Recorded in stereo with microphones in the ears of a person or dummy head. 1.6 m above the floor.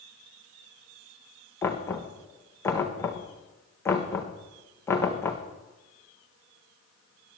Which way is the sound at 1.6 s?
10° left (ahead or behind).